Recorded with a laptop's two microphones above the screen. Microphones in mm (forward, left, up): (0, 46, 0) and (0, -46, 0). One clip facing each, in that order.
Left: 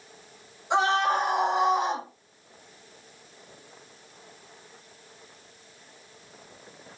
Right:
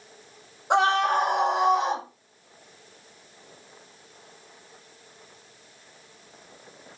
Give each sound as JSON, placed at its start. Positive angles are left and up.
{"t": 0.7, "sound": "a scream", "side_deg": -65, "distance_m": 4.5}